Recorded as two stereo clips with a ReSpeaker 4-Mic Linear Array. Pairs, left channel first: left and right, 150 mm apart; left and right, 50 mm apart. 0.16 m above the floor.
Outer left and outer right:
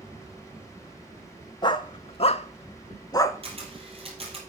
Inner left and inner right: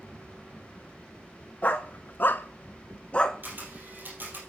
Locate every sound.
1.6 s a dog barking: 30° left (ahead or behind), 0.8 m; by 3.4 s 20° left (ahead or behind), 0.7 m
3.4 s a camera shutter: 40° right (ahead or behind), 3 m